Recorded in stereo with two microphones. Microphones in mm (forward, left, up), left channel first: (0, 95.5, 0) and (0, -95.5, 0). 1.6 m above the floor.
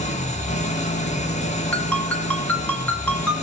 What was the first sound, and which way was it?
An engine running, 40° left (ahead or behind).